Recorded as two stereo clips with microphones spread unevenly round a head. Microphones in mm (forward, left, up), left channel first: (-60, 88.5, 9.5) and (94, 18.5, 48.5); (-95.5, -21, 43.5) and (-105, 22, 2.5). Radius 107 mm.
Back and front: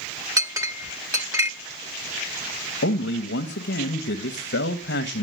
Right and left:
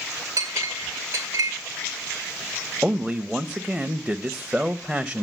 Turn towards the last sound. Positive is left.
turn(degrees=175)